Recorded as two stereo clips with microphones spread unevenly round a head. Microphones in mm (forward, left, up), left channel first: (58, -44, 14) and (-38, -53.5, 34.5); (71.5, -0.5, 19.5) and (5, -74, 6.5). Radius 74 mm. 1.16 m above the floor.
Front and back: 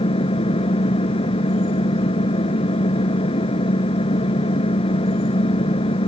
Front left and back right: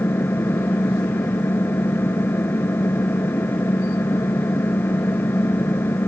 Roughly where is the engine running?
Ahead.